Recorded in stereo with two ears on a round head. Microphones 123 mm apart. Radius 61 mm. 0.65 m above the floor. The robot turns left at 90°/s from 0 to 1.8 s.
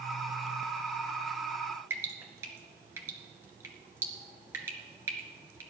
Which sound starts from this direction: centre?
Dripping, at 1.9 s.